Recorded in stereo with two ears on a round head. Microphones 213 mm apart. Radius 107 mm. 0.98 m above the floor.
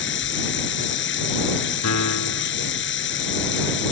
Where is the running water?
55° left (ahead or behind).